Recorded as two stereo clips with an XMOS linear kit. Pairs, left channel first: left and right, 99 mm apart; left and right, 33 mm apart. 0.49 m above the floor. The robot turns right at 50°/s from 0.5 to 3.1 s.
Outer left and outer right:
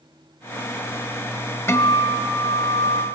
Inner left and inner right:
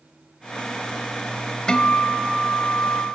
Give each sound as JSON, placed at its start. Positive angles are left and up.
{"t": 1.7, "sound": "a guitar", "azimuth_deg": 25, "distance_m": 0.7}